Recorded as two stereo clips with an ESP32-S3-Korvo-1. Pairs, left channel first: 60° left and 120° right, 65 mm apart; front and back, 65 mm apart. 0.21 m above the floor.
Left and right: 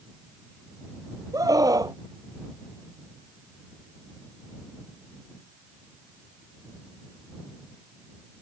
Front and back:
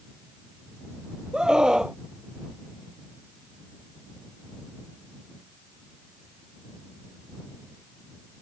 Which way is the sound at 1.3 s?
100° right.